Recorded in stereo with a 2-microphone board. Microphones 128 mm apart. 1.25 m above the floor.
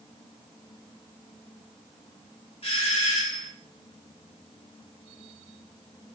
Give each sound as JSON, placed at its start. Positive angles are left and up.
{"t": 2.6, "sound": "a doorbell", "side_deg": 55, "distance_m": 1.2}